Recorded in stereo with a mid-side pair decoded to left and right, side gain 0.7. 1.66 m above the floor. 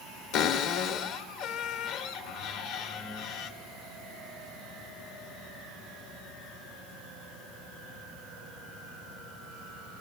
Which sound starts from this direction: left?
A cupboard door, at 0.3 s.